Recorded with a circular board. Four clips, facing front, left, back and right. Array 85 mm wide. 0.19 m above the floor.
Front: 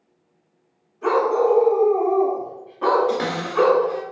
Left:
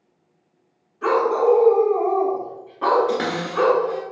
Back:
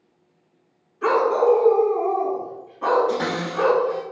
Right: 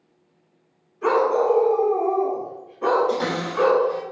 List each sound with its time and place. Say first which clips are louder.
1.0 s a dog barking: left 1 dB, even; 150° left, 1.0 m; by 3.9 s 25° left, 0.9 m
3.1 s a cupboard door: left 1 dB, front 1 dB; 70° left, 1.4 m